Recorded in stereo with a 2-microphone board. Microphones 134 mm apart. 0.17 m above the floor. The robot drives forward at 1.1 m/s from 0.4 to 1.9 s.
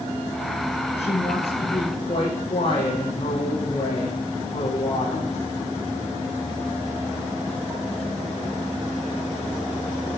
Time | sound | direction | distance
1.0 | a woman speaking | 50° left (ahead or behind) | 6.5 m